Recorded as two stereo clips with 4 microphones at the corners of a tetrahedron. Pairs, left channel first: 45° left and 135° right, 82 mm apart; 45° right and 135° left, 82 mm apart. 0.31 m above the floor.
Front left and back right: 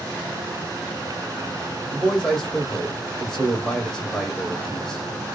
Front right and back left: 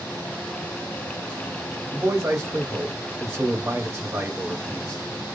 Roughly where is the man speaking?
Behind left.